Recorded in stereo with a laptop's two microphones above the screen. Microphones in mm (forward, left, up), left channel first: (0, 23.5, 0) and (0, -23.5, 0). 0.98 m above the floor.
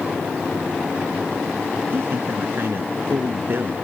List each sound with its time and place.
1.9 s a man speaking: 50° right (ahead or behind)